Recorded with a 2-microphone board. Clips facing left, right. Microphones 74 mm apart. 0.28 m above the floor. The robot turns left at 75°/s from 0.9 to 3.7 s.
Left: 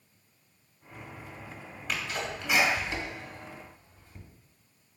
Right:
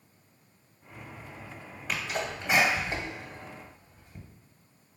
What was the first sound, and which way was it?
A sneeze, 10° right (ahead or behind).